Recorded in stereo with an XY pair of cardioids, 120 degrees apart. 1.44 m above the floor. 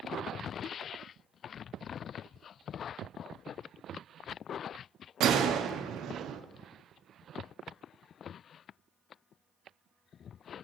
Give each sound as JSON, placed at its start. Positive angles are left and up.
{"t": 5.2, "sound": "a gunshot", "azimuth_deg": -65, "distance_m": 0.5}